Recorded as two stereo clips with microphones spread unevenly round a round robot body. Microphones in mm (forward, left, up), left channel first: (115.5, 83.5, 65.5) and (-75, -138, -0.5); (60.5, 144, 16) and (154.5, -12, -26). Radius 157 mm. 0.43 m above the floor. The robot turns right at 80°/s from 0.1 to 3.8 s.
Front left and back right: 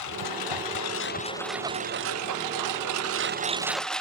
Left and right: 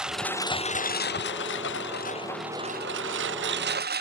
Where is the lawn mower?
25° left; by 4.0 s 40° right.